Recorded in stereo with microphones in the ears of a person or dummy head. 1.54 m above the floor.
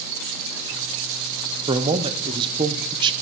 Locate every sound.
1.7 s a man speaking: 25° right (ahead or behind), 0.6 m